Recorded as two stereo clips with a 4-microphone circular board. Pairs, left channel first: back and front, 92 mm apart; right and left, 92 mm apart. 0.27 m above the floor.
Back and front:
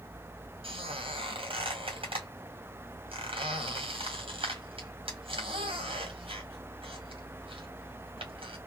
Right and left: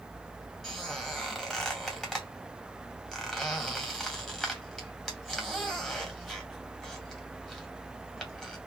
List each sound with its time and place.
0.6 s a squeak: straight ahead, 2.5 m